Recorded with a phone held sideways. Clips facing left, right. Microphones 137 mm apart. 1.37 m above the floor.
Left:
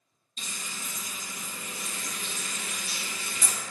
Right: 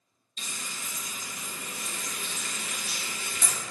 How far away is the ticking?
I don't hear ticking.